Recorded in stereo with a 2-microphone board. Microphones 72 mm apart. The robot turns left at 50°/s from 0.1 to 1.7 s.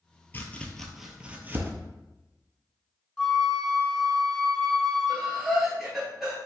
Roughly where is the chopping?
Left.